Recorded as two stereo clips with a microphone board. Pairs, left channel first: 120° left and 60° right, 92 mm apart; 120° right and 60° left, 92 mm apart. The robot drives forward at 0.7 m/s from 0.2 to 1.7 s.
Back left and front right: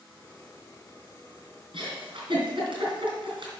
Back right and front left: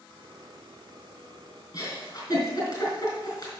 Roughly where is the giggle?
Right.